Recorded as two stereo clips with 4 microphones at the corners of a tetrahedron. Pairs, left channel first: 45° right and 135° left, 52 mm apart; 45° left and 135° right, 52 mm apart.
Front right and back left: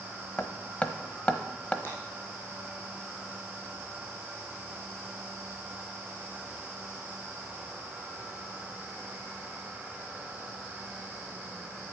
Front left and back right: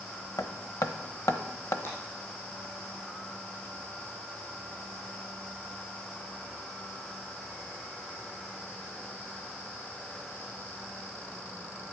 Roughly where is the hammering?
Ahead.